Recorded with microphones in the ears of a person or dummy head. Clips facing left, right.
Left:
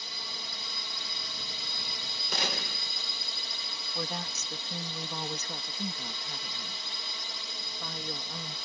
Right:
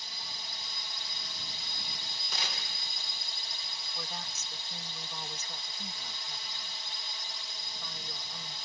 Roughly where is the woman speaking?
Left.